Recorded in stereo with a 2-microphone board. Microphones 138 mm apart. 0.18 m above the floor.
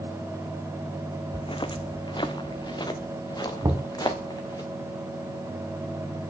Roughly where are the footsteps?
Left.